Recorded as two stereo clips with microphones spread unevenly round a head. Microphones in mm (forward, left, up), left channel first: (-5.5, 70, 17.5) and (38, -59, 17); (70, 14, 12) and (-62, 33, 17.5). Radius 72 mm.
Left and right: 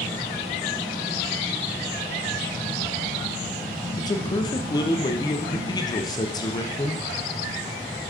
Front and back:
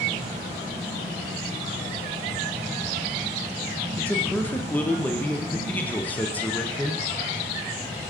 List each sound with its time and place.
4.0 s a man speaking: 60° left, 0.7 m